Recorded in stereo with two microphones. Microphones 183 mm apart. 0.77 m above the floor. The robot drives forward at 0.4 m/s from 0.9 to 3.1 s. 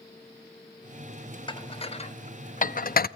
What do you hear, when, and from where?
1.5 s dishes clattering: 25° left (ahead or behind), 0.9 m; by 3.1 s 55° left (ahead or behind), 0.5 m